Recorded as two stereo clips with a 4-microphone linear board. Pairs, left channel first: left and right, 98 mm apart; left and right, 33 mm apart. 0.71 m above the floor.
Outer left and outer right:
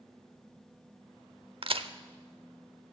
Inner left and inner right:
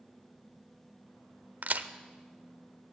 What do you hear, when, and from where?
1.6 s a crack: 65° right (ahead or behind), 0.6 m